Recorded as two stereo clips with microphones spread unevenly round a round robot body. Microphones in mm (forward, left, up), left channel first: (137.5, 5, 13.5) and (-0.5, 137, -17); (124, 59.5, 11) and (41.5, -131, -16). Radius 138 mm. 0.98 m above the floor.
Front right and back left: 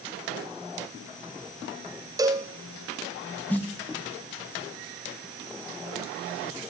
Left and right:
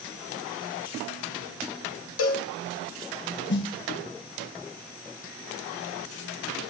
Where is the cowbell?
65° left, 0.9 m.